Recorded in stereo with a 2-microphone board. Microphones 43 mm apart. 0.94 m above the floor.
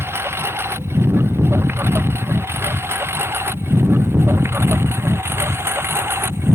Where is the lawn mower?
75° right (ahead or behind); by 6.5 s 70° right (ahead or behind).